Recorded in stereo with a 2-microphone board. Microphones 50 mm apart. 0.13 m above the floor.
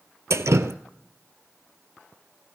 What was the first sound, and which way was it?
Dripping, 70° right (ahead or behind).